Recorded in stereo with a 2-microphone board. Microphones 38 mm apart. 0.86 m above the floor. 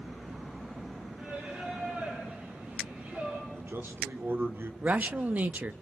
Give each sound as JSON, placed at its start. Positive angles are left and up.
{"t": 1.2, "sound": "singing", "side_deg": -45, "distance_m": 9.5}
{"t": 3.5, "sound": "a man speaking", "side_deg": -70, "distance_m": 2.5}
{"t": 4.8, "sound": "a man speaking", "side_deg": -45, "distance_m": 1.0}